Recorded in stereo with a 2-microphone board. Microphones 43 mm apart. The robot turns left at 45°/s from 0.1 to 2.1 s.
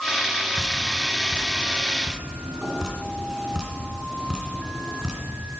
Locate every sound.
0.6 s dripping: 60° right (ahead or behind), 2.5 m; by 5.2 s 20° right (ahead or behind), 2.5 m